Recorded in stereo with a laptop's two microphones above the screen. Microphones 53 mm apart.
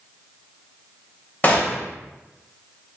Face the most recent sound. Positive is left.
turn(degrees=30)  # may be behind; listen again after turning